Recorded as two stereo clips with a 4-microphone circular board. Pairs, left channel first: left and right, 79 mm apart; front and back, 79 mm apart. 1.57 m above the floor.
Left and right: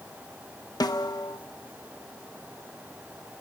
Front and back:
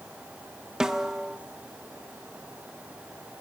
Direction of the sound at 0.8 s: 100° left.